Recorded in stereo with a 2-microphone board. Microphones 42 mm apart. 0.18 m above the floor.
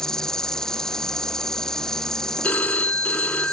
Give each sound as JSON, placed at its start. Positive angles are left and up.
{"t": 0.0, "sound": "an insect", "side_deg": 15}
{"t": 2.4, "sound": "a phone ringing", "side_deg": 40}